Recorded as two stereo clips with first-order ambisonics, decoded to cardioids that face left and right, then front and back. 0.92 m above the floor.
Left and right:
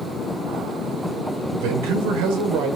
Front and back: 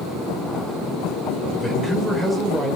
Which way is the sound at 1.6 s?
85° right.